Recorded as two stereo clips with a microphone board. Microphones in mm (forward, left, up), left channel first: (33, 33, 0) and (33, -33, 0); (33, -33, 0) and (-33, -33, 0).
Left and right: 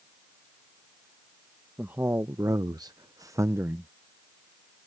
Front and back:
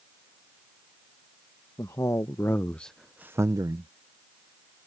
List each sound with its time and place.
1.8 s a man speaking: 30° right; by 3.9 s 155° right